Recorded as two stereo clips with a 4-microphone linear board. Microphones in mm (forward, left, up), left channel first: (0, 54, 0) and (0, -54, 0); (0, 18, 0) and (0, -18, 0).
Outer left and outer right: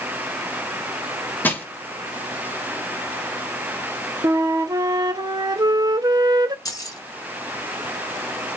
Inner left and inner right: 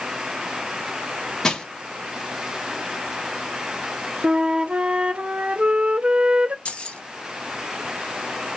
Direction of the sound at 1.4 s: 15° left (ahead or behind).